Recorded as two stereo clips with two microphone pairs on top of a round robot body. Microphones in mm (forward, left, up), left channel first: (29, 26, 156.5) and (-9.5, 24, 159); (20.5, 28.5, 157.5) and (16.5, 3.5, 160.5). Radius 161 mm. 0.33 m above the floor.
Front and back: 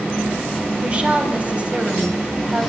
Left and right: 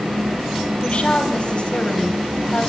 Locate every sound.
0.8 s a woman speaking: 125° left, 3.5 m